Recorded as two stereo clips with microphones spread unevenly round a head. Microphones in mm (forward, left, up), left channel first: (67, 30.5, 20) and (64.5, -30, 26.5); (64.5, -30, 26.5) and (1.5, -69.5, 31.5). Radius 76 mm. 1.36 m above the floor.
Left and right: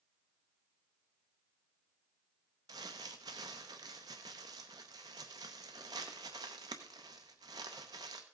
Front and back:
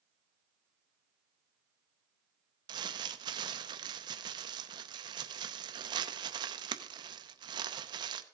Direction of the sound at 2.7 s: 135° right.